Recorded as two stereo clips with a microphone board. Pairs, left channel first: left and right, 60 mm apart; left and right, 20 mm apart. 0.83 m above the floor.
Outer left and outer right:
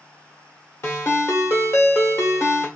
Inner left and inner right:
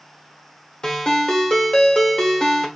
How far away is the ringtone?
About 1.2 m.